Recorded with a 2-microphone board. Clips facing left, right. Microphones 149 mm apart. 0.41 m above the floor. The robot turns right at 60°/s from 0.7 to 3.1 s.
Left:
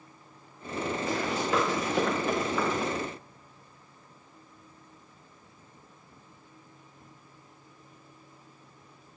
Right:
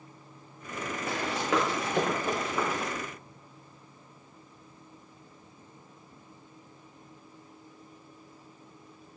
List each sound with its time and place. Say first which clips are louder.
1.1 s running footsteps: right 1 dB; 60° right (ahead or behind), 5 m; by 2.9 s 5° left (ahead or behind), 4 m